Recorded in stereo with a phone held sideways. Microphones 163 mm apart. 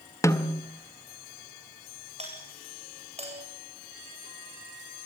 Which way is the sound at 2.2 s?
40° right (ahead or behind).